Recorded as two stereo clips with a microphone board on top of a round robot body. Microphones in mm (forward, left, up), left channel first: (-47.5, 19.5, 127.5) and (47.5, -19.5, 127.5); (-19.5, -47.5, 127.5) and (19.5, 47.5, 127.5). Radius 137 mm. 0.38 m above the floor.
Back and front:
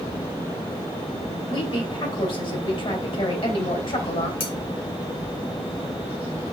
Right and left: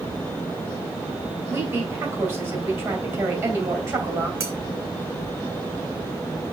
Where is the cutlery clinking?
130° left, 2.5 m.